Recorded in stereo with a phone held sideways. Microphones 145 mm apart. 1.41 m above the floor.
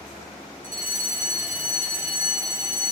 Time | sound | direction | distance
0.6 | a fire alarm | 65° right (ahead or behind) | 8 m